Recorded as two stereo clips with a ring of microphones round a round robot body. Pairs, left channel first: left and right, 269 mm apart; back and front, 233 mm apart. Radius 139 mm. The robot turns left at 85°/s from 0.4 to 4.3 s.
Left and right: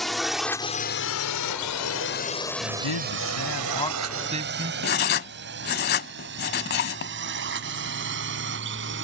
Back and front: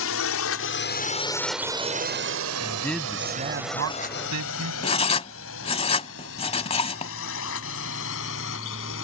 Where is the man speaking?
120° left; by 4.7 s 25° right.